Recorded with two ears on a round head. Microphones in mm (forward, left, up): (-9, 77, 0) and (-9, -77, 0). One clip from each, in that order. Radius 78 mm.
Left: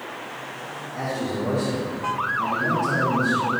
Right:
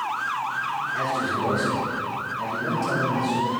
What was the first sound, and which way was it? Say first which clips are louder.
A man speaking: left 1 dB; 65° right (ahead or behind).